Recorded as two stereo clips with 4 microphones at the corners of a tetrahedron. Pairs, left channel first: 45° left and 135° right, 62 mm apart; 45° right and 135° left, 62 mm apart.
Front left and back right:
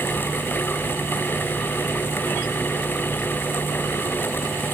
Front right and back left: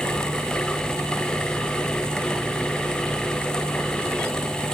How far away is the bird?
I don't hear a bird.